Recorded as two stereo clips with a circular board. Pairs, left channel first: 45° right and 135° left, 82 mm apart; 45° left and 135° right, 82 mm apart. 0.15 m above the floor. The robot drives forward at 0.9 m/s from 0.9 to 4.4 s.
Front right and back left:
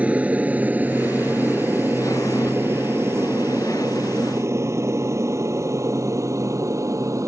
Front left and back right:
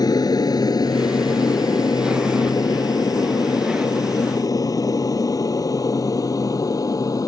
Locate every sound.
0.0 s an aircraft: 65° left; by 7.3 s 85° left